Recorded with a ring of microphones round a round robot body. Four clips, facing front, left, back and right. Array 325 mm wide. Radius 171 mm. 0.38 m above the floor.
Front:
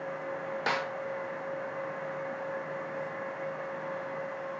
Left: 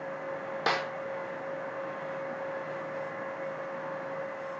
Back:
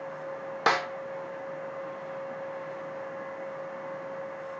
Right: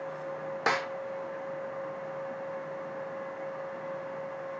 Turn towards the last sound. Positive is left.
turn(degrees=-175)